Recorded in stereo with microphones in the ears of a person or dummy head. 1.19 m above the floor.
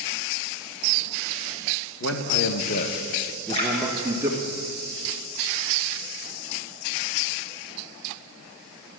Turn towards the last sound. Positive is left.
turn(degrees=35)  # may be behind; listen again after turning